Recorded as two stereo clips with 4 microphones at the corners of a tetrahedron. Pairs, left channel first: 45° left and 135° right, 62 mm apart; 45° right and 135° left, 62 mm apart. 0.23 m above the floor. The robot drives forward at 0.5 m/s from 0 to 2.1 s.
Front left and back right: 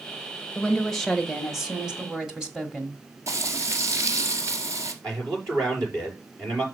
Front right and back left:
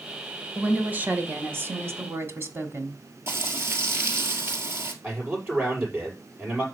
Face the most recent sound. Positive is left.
turn(degrees=-165)